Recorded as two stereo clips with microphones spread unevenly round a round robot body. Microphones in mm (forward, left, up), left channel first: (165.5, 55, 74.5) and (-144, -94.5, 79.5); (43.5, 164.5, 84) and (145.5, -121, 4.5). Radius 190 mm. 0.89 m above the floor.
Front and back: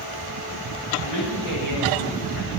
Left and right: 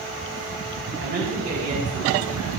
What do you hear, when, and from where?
1.0 s a man speaking: 15° right, 6.5 m; by 2.5 s 5° left, 7 m